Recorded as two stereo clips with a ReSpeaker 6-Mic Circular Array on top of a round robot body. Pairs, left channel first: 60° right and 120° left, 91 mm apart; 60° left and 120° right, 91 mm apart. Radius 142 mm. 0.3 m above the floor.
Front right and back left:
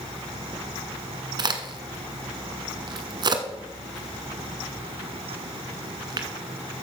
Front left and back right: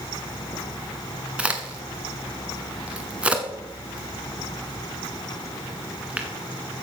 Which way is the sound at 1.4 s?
160° left.